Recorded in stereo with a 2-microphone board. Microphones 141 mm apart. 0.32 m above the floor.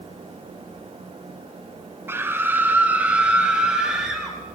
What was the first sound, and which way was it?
A scream, 15° right (ahead or behind).